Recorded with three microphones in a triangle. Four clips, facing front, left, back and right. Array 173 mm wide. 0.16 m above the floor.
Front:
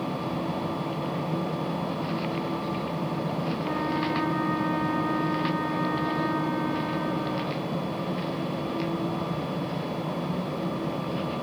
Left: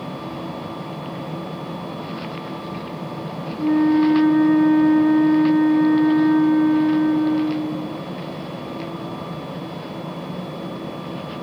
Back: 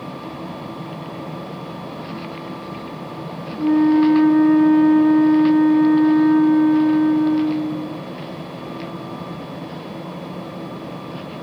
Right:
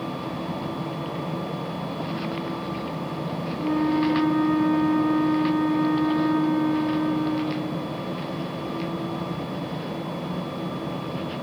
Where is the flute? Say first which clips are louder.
Left 7 dB, back 18 dB; 155° left.